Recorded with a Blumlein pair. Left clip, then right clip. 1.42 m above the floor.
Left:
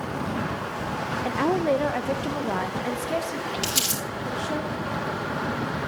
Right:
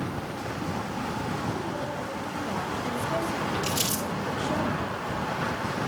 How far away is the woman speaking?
About 1.1 m.